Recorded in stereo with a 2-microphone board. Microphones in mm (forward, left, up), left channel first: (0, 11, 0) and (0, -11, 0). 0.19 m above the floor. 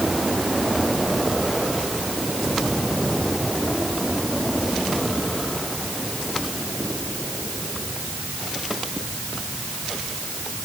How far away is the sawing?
No sawing in this recording.